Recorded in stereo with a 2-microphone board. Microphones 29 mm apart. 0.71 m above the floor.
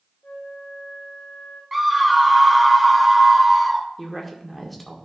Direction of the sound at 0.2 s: 65° left (ahead or behind).